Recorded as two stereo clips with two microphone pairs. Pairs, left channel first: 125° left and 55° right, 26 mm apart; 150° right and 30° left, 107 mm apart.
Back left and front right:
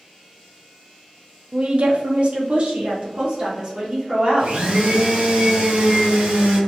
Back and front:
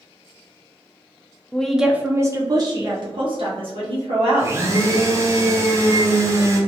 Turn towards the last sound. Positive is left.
turn(degrees=-30)